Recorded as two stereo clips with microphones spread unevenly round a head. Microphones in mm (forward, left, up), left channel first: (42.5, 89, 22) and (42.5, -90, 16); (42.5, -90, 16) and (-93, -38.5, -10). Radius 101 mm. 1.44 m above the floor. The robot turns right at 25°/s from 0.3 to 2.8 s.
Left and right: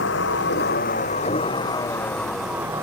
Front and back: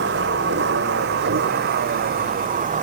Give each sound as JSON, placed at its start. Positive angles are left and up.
{"t": 0.0, "sound": "a vehicle", "azimuth_deg": 130}